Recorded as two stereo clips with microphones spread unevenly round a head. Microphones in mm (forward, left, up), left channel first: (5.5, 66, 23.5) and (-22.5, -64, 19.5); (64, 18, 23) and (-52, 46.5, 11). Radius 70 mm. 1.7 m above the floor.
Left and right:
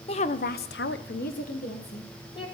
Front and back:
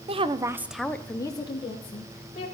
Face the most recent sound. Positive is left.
turn(degrees=25)